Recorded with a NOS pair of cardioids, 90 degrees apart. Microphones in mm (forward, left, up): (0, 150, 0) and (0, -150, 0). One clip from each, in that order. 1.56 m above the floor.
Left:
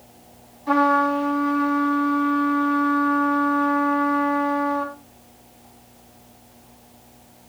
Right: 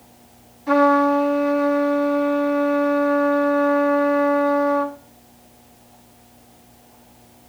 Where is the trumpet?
15° right, 3.5 m.